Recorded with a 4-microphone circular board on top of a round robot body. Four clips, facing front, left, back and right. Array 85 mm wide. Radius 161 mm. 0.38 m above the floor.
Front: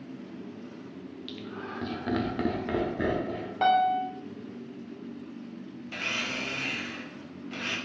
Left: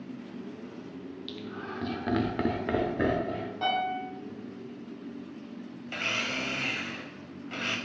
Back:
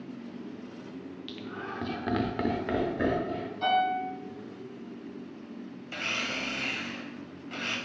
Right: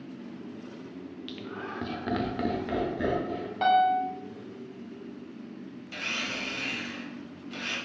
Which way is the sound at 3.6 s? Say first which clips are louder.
Right 8 dB, front 4 dB; 25° right.